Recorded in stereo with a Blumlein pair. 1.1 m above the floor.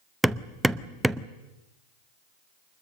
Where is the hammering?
5° right, 0.6 m.